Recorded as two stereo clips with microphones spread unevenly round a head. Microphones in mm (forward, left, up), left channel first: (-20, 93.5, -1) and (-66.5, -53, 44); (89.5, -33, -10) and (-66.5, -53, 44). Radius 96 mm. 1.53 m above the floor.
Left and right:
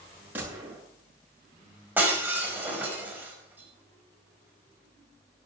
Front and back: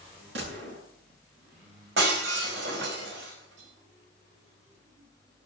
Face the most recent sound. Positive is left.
turn(degrees=175)